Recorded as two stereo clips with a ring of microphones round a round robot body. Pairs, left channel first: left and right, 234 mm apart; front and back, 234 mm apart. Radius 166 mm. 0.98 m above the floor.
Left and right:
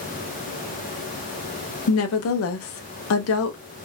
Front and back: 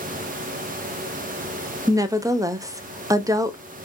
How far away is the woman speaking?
About 0.6 m.